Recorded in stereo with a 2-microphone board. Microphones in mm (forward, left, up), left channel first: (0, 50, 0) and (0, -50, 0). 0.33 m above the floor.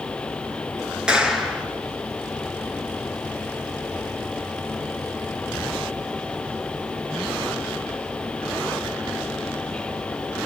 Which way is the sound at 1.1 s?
10° right (ahead or behind).